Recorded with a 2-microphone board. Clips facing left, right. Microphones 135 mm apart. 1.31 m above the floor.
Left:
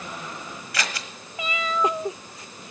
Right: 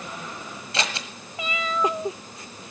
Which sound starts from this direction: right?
Scissors, at 0.7 s.